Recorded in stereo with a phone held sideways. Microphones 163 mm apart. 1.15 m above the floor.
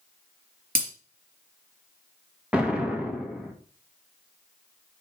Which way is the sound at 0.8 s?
60° right (ahead or behind).